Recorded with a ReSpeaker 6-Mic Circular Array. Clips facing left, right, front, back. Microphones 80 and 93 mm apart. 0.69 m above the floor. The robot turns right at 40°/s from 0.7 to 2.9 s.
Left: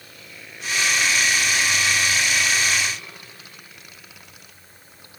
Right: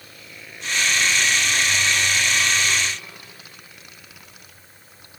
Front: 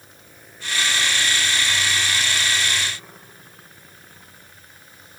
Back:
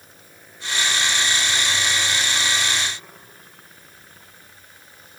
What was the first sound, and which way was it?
Only background noise.